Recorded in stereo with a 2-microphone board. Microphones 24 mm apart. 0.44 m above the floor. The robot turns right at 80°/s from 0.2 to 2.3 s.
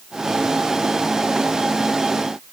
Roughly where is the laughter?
I don't hear laughter.